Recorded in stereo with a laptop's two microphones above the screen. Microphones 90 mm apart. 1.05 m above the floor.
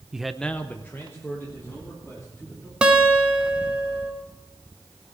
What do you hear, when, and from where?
0.1 s a man speaking: 10° right (ahead or behind), 0.8 m; by 2.7 s 25° left (ahead or behind), 3.5 m
2.8 s a guitar: 10° right (ahead or behind), 1.8 m